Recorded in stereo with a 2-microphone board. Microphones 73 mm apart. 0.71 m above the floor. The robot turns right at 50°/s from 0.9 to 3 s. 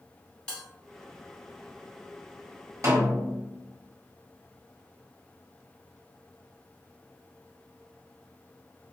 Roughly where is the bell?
Centre.